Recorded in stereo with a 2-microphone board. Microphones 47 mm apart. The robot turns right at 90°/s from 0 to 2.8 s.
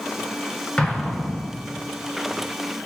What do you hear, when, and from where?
0.8 s an explosion: 25° left (ahead or behind), 0.8 m; by 1.6 s centre (ahead or behind), 0.8 m